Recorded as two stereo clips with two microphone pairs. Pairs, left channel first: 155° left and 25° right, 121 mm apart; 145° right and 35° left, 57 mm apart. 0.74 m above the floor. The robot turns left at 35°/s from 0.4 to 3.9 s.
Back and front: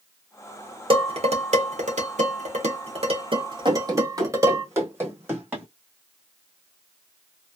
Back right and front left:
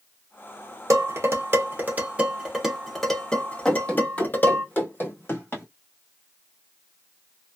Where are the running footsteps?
65° right, 1.5 m; by 5.7 s 100° right, 2 m.